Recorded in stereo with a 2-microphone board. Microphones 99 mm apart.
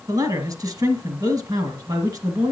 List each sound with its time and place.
0.1 s a man speaking: 40° right (ahead or behind), 2.0 m